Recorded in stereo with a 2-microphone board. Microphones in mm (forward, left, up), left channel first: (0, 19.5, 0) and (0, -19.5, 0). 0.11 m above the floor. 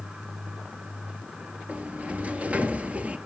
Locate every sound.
1.7 s a sliding door: 30° right (ahead or behind), 0.9 m